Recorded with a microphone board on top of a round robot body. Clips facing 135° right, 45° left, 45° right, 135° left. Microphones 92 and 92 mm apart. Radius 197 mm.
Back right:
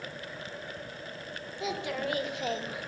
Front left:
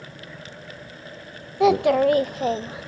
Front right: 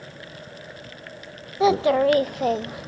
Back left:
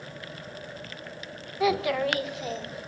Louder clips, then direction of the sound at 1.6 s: Front left 17 dB, front right 7 dB; 20° left.